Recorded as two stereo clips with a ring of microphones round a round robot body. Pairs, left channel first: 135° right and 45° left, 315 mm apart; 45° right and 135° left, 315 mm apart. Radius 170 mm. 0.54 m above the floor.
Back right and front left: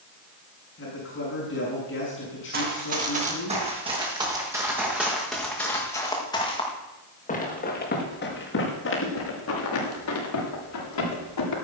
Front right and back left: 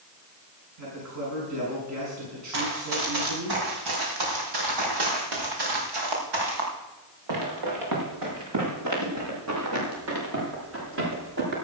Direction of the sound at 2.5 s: 110° left.